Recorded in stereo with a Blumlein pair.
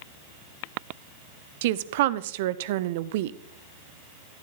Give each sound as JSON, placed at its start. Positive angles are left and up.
{"t": 1.6, "sound": "a woman speaking", "azimuth_deg": -55, "distance_m": 0.8}